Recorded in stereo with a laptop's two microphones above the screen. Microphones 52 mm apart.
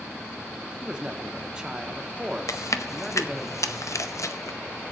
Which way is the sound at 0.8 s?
15° right (ahead or behind).